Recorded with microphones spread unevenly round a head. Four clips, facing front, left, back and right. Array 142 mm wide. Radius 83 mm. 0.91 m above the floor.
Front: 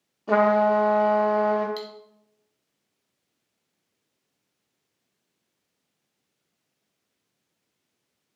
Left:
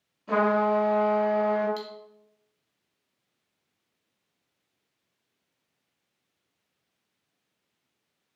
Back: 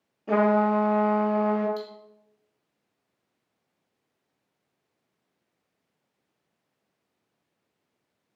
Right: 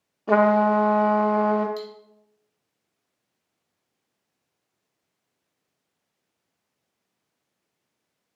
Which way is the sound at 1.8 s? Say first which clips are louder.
Right 3 dB, even; 25° left.